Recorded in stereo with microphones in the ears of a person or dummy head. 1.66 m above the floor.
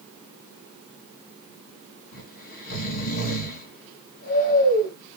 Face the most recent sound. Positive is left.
turn(degrees=45)  # may be behind; listen again after turning